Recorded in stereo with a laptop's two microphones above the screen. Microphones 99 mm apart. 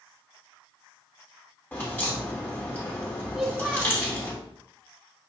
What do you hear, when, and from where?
1.7 s a crack: 15° left (ahead or behind), 3 m
3.3 s a child speaking: 5° right (ahead or behind), 1.6 m